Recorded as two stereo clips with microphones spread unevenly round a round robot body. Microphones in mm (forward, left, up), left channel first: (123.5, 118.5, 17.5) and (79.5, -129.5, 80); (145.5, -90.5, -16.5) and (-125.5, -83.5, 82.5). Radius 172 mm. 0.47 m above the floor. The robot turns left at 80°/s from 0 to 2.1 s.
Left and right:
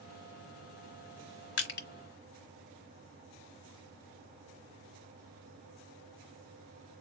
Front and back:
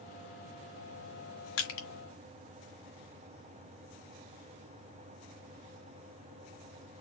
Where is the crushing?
50° left, 1.4 m; by 1.9 s 25° left, 1.4 m.